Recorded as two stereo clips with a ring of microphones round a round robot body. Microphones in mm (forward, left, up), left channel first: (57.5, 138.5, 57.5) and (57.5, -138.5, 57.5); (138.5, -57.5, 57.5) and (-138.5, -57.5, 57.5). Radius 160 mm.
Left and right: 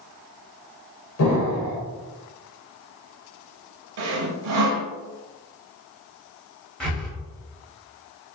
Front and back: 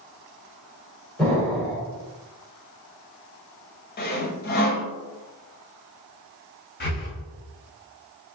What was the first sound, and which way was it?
An explosion, 85° left.